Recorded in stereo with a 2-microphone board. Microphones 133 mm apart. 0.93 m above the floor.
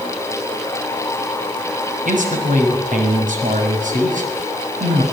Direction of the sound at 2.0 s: 80° right.